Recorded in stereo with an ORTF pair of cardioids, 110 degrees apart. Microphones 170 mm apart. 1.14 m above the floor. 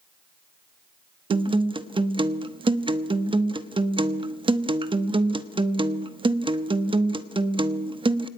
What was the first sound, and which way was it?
A guitar, 30° right.